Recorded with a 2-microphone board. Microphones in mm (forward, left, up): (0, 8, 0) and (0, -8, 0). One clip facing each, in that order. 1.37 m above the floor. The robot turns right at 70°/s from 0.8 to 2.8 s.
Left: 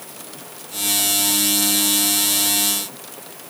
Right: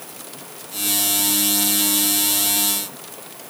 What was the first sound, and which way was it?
Only background noise.